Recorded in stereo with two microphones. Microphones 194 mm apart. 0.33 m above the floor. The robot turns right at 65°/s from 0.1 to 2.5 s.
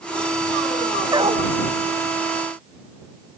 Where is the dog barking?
20° right (ahead or behind); by 1.5 s 45° right (ahead or behind).